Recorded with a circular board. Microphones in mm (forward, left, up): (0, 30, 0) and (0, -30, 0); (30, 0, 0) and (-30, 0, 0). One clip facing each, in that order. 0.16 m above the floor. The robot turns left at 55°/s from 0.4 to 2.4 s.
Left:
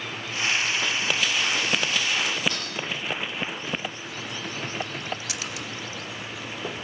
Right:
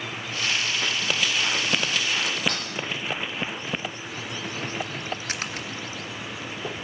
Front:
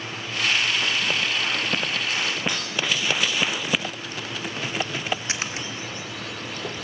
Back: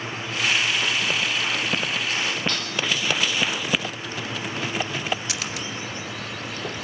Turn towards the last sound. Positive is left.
turn(degrees=-55)